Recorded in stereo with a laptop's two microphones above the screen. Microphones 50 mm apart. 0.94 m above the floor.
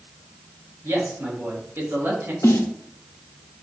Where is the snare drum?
85° left, 0.7 m.